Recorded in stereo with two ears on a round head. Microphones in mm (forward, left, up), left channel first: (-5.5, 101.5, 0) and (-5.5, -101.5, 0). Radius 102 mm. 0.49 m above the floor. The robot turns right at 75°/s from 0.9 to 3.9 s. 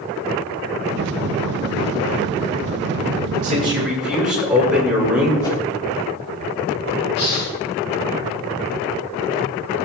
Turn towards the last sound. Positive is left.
turn(degrees=50)  # may be behind; listen again after turning